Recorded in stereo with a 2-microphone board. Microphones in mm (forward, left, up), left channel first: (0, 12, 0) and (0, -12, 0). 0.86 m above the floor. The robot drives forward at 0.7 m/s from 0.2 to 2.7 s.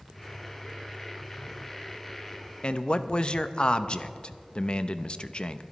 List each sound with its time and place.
2.6 s a man speaking: 40° left (ahead or behind), 0.5 m